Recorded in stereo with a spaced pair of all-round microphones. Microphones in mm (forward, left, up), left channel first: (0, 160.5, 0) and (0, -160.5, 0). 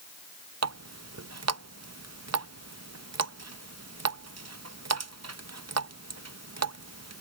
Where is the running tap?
50° right (ahead or behind).